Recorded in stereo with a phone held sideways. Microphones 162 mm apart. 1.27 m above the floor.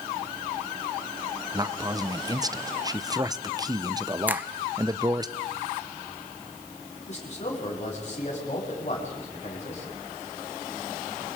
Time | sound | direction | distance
1.5 | a man speaking | 25° right (ahead or behind) | 0.8 m
4.3 | a finger snap | 10° right (ahead or behind) | 0.8 m
7.1 | a man speaking | 45° left (ahead or behind) | 8.5 m